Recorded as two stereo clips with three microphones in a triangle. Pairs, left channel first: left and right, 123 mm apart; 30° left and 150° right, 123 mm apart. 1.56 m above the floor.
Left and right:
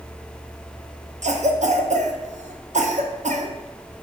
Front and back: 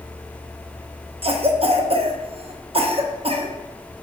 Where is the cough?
110° right, 0.6 m.